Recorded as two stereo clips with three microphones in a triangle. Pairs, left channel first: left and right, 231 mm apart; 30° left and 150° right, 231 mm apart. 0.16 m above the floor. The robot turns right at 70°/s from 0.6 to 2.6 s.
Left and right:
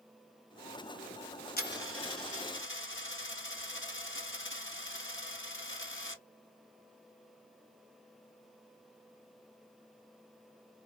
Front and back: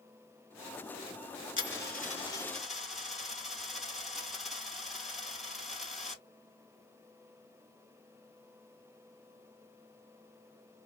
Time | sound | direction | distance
1.6 | a dropped coin | 50° left | 1.4 m